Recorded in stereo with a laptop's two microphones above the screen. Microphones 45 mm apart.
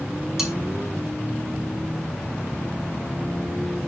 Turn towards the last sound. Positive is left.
turn(degrees=-10)  # may be behind; listen again after turning